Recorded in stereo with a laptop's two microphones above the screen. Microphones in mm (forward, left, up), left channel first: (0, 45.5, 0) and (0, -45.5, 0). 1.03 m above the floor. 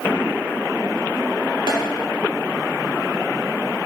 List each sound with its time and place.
1.7 s tapping: 65° right (ahead or behind), 2.5 m